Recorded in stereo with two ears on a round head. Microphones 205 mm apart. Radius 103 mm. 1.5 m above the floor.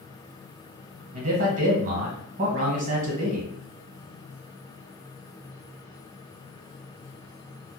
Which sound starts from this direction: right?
A man speaking, at 1.1 s.